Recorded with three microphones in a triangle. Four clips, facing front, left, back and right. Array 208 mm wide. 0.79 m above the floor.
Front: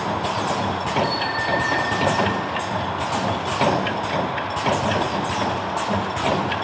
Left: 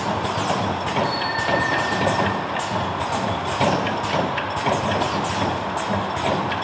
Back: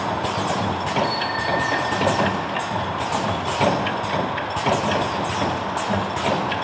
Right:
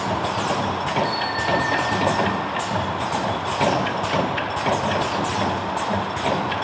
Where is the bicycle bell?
105° right, 3 m; by 2.3 s 110° right, 5 m.